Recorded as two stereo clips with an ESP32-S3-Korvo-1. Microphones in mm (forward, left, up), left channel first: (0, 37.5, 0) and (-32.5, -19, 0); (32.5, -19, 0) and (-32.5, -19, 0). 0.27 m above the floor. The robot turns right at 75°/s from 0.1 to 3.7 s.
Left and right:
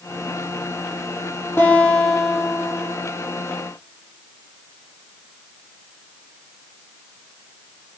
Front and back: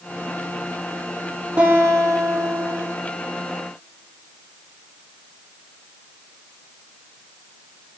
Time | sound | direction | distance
1.6 | a guitar | 120° left | 1.5 m